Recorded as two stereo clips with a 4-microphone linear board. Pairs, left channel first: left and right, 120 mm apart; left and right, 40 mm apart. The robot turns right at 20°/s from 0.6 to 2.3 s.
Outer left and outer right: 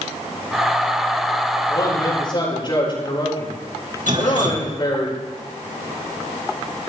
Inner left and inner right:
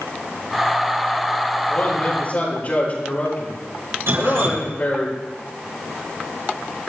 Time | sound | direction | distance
1.7 | a man speaking | 25° left (ahead or behind) | 9 m
4.1 | dripping | 80° right | 3.5 m